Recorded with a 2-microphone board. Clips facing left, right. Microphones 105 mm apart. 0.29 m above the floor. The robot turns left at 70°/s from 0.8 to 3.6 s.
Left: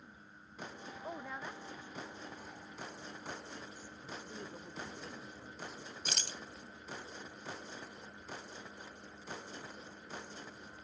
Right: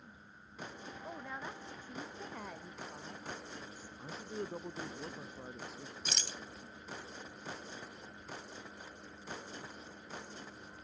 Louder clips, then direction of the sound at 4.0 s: Right 6 dB; 40° right (ahead or behind).